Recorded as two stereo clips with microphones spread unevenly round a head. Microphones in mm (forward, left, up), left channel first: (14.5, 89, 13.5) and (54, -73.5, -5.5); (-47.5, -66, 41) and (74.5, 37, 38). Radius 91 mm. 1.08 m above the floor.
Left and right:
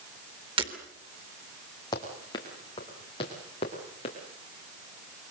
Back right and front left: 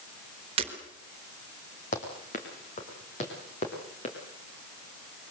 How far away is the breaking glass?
About 3.5 m.